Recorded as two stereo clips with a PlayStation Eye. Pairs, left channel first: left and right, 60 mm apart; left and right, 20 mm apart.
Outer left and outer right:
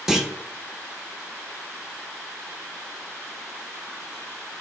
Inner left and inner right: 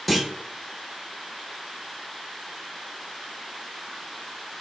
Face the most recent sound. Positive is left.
turn(degrees=-5)  # may be behind; listen again after turning